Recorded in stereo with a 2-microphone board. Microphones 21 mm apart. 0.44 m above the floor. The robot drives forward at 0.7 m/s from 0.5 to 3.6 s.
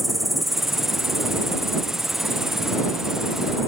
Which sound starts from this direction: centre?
An insect, at 0.0 s.